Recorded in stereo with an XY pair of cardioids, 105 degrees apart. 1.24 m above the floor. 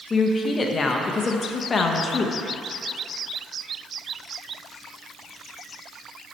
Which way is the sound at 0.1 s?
35° left.